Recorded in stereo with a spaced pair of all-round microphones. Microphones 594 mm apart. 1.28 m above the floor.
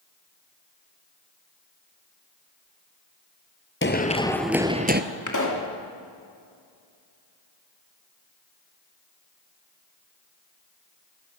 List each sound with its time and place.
3.8 s running footsteps: 20° left (ahead or behind), 1.5 m; by 5.0 s 20° right (ahead or behind), 1.4 m
5.3 s a pop: 30° left (ahead or behind), 2.5 m